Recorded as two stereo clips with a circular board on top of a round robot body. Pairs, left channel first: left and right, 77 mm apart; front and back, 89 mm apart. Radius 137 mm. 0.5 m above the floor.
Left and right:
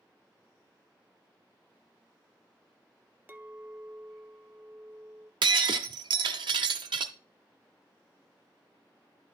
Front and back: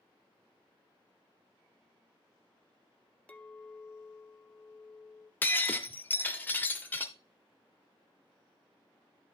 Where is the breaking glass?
70° right, 0.6 m.